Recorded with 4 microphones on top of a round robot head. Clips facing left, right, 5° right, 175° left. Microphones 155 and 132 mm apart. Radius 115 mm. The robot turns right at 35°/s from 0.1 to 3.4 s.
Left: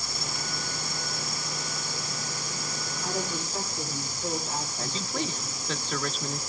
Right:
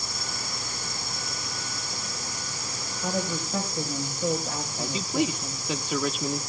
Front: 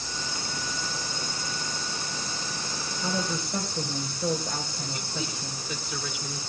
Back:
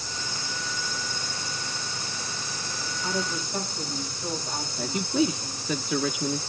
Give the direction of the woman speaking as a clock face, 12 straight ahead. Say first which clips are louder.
Right 4 dB, even; 2 o'clock.